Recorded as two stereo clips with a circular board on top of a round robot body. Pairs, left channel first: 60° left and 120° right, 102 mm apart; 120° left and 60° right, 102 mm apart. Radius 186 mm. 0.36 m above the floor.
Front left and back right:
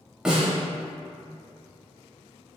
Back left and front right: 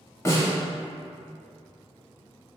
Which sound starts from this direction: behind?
A snare drum, at 0.2 s.